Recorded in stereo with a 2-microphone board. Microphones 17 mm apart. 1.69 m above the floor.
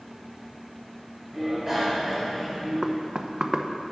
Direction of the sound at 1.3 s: 15° right (ahead or behind).